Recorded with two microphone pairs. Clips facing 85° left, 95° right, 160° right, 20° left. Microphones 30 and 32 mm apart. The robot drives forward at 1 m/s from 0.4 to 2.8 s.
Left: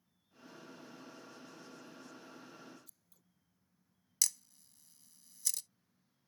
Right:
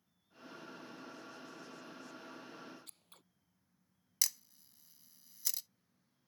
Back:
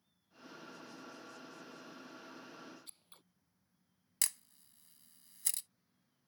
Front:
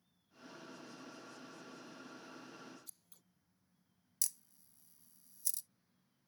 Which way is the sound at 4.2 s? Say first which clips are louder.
Left 1 dB, back 5 dB; 170° right.